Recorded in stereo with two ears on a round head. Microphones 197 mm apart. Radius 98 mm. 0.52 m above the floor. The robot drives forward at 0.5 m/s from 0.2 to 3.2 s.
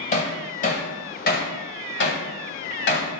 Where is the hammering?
35° left (ahead or behind), 1.7 m; by 3.1 s 50° left (ahead or behind), 1.1 m.